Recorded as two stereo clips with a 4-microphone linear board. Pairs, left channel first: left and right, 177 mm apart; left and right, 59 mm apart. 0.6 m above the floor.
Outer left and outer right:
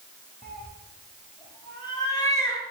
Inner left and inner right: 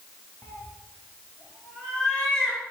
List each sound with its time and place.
0.4 s a cat meowing: 55° left (ahead or behind), 1.9 m; by 2.6 s 15° left (ahead or behind), 3.5 m